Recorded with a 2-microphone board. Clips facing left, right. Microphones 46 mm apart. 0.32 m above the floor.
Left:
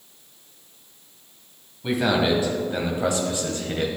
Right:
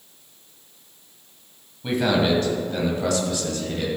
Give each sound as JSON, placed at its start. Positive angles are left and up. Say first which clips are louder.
{"t": 1.8, "sound": "a man speaking", "louder": "even", "side_deg": 5, "distance_m": 2.0}